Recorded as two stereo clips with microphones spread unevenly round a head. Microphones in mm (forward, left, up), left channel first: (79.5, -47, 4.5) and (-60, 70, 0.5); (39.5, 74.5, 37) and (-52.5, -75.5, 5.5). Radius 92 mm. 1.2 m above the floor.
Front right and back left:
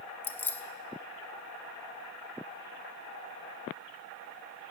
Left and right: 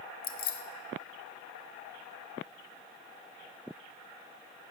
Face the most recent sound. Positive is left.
turn(degrees=35)